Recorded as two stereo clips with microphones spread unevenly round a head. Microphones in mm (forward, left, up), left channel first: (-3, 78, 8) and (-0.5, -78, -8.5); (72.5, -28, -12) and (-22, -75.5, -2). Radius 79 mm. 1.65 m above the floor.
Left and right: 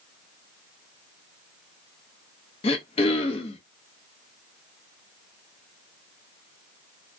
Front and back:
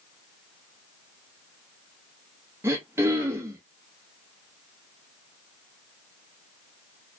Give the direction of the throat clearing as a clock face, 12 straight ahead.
7 o'clock.